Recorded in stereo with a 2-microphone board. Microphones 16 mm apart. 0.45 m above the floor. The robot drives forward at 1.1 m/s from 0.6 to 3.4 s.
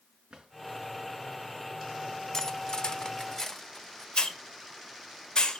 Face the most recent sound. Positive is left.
turn(degrees=50)  # may be behind; listen again after turning